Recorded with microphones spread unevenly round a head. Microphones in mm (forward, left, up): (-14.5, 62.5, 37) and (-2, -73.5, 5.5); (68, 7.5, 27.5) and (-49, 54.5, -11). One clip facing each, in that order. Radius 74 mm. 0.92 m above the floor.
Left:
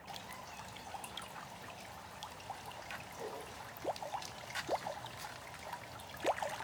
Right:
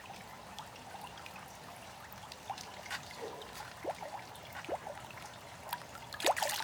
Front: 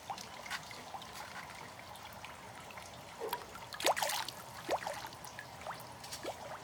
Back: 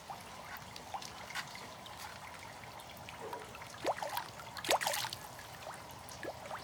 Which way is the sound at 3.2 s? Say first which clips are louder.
Even, front 4 dB; 30° left.